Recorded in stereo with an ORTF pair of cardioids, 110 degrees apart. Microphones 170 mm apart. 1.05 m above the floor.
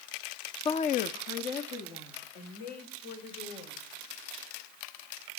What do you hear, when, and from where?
0.7 s a woman speaking: 30° left, 0.5 m; by 4.1 s 75° left, 5 m